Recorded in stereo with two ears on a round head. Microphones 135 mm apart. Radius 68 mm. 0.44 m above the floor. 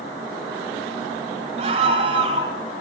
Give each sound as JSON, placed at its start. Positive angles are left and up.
{"t": 1.6, "sound": "a scream", "side_deg": -45, "distance_m": 3.0}